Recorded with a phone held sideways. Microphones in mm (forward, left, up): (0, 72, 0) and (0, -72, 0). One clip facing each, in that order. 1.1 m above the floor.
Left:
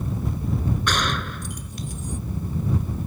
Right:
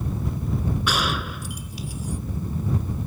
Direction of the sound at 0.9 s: 5° right (ahead or behind).